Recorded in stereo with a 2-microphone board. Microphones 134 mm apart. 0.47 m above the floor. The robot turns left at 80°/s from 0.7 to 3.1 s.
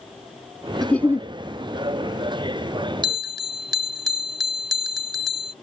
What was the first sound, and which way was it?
A giggle, 175° left.